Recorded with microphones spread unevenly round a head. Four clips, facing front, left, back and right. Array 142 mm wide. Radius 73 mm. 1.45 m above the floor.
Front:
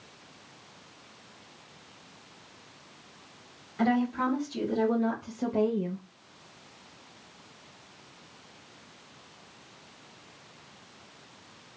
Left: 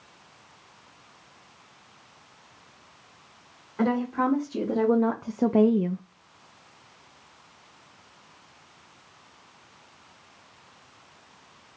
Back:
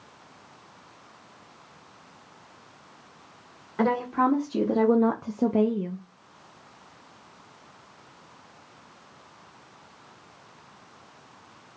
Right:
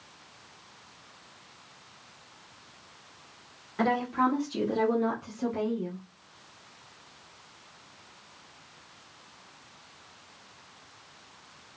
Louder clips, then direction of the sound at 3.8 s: Left 1 dB, back 3 dB; straight behind.